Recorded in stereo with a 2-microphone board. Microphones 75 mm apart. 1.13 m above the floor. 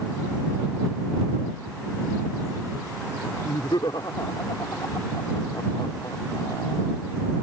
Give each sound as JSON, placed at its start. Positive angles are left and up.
{"t": 3.4, "sound": "laughter", "side_deg": 80}